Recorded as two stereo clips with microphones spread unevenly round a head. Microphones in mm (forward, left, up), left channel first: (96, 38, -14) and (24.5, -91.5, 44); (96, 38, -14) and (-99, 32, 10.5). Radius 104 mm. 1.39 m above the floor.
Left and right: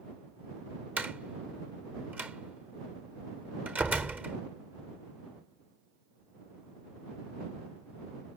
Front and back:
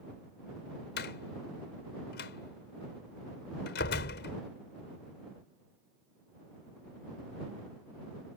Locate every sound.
1.0 s a door slam: 45° right